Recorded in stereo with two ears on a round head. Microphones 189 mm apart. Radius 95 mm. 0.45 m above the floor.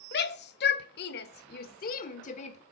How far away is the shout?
About 1.7 m.